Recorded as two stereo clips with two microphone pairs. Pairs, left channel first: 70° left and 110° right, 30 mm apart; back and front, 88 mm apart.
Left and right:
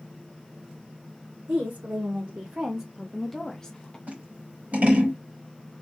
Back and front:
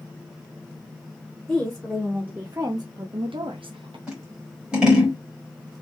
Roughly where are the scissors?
Right.